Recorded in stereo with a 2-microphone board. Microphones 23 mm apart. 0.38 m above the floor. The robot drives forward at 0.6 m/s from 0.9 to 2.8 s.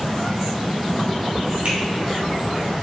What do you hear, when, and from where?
1.6 s a finger snap: 55° right (ahead or behind), 1.8 m